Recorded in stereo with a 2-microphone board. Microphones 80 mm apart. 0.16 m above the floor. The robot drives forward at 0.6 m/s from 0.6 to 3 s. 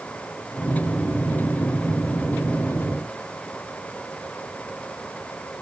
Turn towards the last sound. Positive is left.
No sound to turn to.